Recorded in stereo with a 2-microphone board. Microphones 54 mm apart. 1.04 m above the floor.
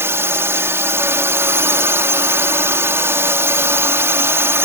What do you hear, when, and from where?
0.0 s a drone: 55° right (ahead or behind)